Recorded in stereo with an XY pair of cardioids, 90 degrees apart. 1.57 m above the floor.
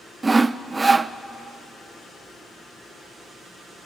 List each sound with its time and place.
0.2 s sawing: 25° right, 0.5 m